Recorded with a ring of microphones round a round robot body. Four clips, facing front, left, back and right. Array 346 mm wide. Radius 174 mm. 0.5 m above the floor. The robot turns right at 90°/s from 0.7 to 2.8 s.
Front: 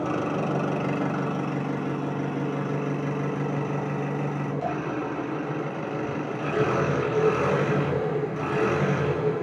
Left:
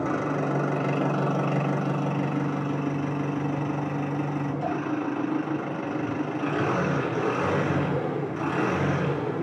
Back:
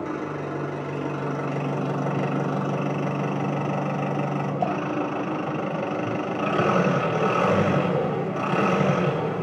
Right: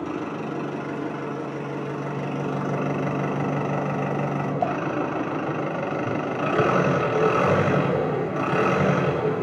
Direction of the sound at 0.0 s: 45° left.